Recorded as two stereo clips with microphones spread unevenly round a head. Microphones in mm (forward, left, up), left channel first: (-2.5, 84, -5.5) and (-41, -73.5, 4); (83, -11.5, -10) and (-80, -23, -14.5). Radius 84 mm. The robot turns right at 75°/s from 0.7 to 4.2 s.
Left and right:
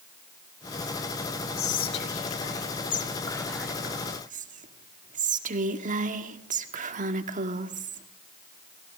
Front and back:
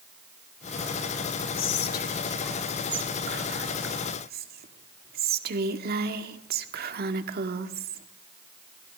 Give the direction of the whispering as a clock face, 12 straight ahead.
11 o'clock.